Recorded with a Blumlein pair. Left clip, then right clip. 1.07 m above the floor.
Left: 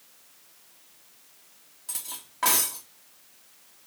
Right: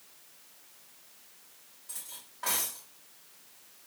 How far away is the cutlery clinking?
About 0.8 m.